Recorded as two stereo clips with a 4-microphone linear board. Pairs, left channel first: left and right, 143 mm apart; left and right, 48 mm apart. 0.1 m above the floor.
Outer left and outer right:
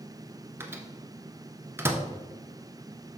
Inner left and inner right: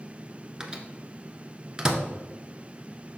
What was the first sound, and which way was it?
A microwave, 15° right (ahead or behind).